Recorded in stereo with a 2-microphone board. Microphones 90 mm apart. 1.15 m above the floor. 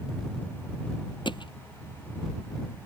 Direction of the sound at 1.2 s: 60° left (ahead or behind).